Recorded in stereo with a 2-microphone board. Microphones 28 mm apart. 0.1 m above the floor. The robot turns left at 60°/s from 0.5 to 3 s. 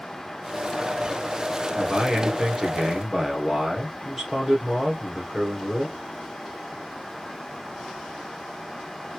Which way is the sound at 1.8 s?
25° right (ahead or behind).